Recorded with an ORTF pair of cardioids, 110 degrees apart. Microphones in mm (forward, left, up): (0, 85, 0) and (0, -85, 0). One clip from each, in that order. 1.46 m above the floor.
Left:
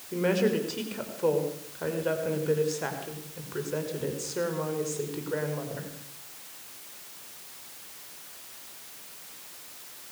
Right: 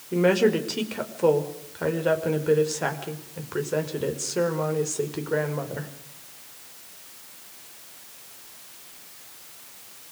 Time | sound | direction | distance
0.1 | a woman speaking | 35° right | 5 m